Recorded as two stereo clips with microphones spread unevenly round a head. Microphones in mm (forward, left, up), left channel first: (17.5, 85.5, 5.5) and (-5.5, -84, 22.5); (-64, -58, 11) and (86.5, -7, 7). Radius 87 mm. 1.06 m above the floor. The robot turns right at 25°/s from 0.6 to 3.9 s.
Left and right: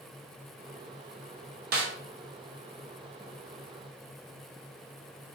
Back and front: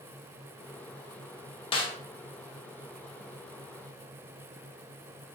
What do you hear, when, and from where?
1.7 s a snare drum: 110° right, 0.5 m; by 1.9 s 105° right, 0.5 m